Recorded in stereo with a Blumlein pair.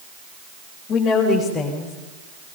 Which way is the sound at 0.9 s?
25° left.